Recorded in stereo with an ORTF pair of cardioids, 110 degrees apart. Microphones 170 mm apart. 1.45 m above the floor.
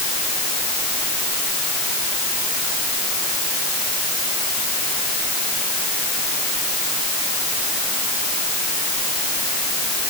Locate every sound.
Only background noise.